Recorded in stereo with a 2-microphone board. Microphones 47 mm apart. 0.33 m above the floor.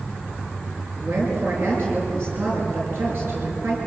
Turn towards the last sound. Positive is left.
turn(degrees=-55)  # may be behind; listen again after turning